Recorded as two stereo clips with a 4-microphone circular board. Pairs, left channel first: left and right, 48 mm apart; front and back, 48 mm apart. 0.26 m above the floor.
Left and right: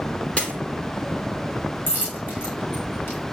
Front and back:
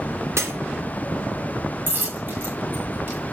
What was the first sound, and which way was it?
Breaking glass, 155° left.